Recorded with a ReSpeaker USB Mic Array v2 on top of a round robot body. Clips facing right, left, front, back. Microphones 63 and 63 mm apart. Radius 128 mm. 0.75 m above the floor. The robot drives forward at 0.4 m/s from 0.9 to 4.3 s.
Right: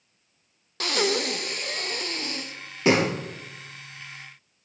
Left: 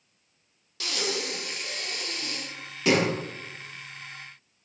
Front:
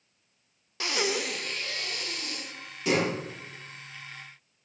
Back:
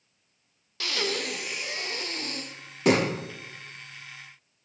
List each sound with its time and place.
0.8 s breathing: 65° right, 0.5 m; by 3.1 s 150° right, 0.9 m